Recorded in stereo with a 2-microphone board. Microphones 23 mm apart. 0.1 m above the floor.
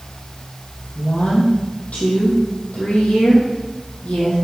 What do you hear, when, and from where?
0.9 s a woman speaking: 65° left (ahead or behind), 3.5 m